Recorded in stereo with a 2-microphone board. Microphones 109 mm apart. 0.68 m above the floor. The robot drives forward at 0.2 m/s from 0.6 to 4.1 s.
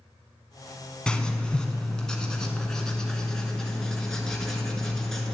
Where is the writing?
10° left (ahead or behind), 0.9 m; by 5.3 s 5° left (ahead or behind), 1.4 m.